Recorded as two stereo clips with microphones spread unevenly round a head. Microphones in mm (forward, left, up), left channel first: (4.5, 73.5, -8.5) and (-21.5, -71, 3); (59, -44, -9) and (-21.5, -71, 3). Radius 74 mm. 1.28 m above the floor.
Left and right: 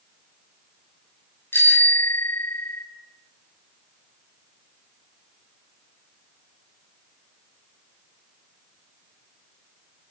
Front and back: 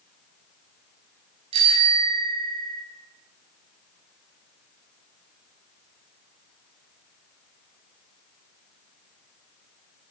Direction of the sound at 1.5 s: 155° left.